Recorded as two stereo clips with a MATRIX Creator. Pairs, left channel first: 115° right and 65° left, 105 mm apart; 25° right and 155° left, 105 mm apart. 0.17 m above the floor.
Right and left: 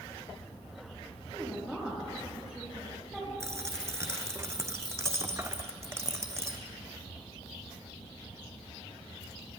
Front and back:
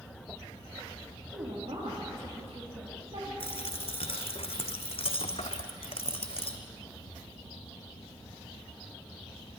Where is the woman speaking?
150° left, 5.5 m.